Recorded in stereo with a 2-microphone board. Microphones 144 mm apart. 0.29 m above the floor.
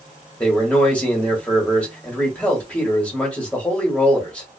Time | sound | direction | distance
0.4 | a man speaking | 10° left (ahead or behind) | 1.2 m